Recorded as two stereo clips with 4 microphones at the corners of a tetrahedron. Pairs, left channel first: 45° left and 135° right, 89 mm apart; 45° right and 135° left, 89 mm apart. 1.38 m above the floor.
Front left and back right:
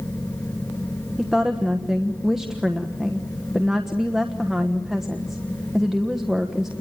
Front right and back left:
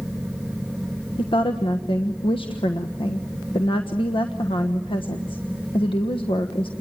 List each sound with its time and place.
1.2 s a woman speaking: 50° right, 1.2 m